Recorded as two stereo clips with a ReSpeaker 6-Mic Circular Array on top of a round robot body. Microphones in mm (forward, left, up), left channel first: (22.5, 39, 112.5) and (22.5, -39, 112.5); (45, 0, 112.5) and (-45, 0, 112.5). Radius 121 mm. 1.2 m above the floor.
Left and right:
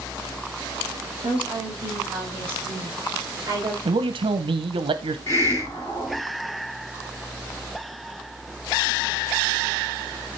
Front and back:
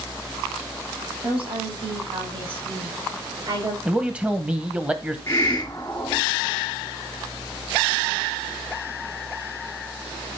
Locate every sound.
1.2 s a woman speaking: 165° right, 8 m; by 3.8 s 135° right, 8 m
3.9 s a man speaking: 100° right, 0.8 m
5.3 s a hiss: 60° left, 0.7 m